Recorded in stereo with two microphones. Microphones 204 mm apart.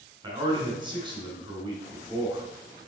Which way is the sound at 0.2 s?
20° right (ahead or behind).